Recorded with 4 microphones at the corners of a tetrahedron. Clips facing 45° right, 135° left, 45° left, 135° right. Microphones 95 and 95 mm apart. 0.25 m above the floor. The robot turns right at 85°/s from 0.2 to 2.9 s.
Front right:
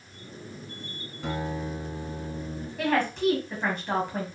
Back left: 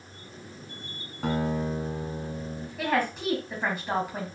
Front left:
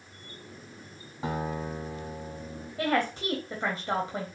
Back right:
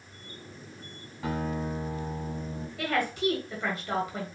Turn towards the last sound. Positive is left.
turn(degrees=55)